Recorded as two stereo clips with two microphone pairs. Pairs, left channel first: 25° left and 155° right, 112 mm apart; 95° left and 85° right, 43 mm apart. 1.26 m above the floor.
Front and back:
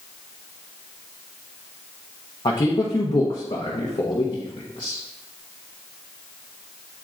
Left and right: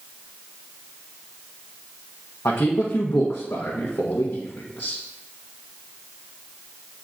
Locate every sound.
2.5 s a man speaking: 70° left, 0.9 m